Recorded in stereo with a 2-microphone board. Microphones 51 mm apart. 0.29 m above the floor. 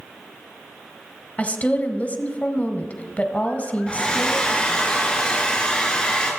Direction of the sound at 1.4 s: 30° left (ahead or behind).